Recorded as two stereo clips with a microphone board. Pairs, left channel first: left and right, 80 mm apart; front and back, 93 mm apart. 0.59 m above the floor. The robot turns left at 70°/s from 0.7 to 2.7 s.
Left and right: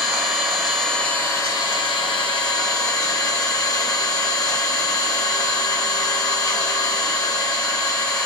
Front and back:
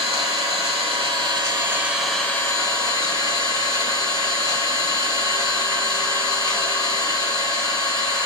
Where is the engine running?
175° right, 0.9 m; by 8.3 s 45° left, 0.9 m.